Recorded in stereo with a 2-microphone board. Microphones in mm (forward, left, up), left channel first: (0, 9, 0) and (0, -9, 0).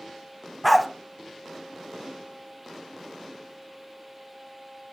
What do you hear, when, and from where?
0.6 s a dog barking: centre (ahead or behind), 1.2 m